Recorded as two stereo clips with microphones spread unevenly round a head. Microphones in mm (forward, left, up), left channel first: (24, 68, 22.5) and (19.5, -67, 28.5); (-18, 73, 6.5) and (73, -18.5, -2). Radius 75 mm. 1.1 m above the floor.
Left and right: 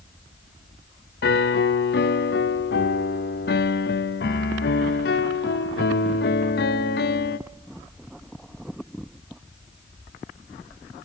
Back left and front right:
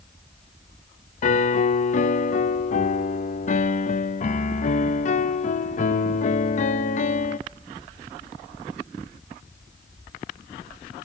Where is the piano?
105° left, 0.7 m.